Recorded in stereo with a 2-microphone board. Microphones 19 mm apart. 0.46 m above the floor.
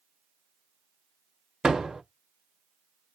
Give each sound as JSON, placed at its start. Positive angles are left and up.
{"t": 1.6, "sound": "a door slam", "side_deg": -55, "distance_m": 1.4}